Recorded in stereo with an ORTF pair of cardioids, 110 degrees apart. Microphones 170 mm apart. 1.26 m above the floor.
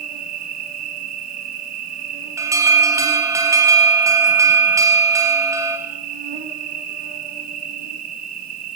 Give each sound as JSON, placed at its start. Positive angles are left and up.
{"t": 0.0, "sound": "an insect", "azimuth_deg": -60, "distance_m": 3.0}
{"t": 2.4, "sound": "an alarm", "azimuth_deg": -20, "distance_m": 4.0}